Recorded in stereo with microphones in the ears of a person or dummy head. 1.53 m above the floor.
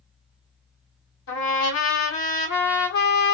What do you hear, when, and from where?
1.3 s a trumpet: 65° left (ahead or behind), 1.1 m